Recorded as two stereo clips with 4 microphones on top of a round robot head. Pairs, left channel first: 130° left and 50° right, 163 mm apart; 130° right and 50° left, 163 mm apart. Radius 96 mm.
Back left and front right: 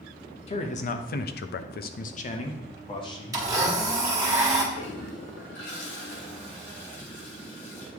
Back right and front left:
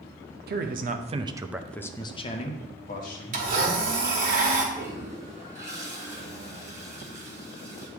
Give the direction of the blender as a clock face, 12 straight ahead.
11 o'clock.